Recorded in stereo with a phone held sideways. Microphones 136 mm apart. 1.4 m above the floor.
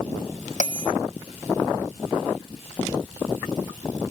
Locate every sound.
0.6 s a bell: 75° left (ahead or behind), 1.2 m